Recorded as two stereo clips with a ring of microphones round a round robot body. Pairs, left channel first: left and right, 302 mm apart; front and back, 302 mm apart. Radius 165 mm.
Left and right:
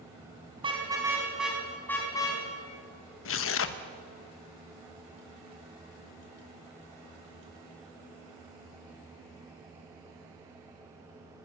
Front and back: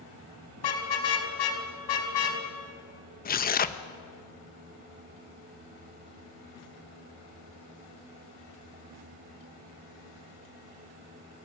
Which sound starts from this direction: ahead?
A car horn, at 0.6 s.